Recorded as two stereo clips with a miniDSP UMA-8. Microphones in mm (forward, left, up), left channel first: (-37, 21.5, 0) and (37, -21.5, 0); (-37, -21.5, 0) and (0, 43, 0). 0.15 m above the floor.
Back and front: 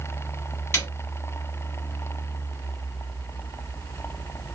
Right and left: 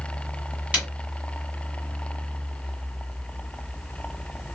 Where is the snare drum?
115° left, 2 m.